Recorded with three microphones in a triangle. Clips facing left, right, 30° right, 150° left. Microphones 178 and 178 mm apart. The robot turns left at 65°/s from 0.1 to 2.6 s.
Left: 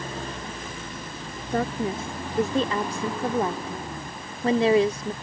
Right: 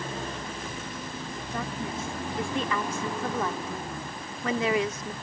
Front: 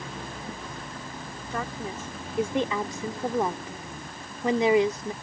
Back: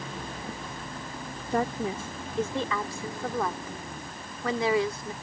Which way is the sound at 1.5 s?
105° left.